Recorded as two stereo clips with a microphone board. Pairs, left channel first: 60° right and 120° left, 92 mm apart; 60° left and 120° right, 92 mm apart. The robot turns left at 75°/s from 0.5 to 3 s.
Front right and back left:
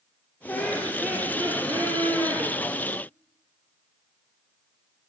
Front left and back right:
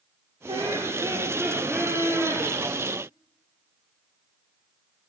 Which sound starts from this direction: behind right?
Laughter, at 0.5 s.